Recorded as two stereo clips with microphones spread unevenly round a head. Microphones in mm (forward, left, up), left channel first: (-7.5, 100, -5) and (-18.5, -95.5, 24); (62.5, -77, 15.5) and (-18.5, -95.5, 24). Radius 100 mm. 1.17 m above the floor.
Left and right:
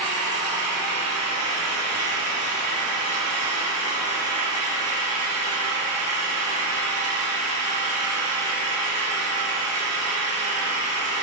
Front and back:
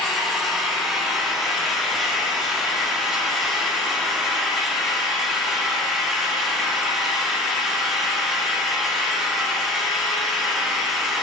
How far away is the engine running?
About 2.0 m.